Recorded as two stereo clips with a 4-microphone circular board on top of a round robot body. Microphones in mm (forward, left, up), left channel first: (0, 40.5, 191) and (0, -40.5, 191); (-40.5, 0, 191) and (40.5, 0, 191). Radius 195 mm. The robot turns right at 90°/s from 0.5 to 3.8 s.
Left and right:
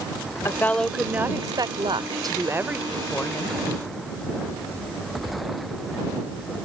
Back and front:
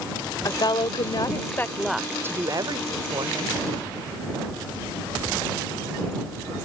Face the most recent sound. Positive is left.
turn(degrees=80)